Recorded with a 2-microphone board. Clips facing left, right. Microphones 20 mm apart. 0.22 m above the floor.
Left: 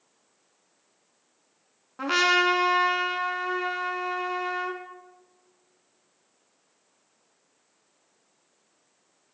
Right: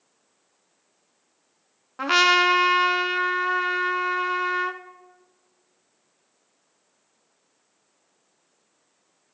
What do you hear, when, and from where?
2.0 s a trumpet: 20° right (ahead or behind), 0.7 m